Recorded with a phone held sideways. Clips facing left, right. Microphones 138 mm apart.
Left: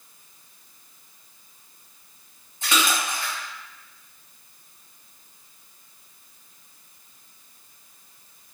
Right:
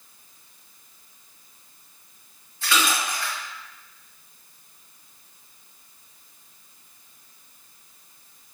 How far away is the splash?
About 1.0 m.